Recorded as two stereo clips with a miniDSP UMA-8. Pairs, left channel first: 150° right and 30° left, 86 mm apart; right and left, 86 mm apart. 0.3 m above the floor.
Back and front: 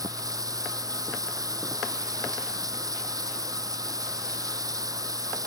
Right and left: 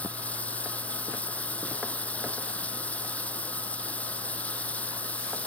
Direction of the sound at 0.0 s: 15° right.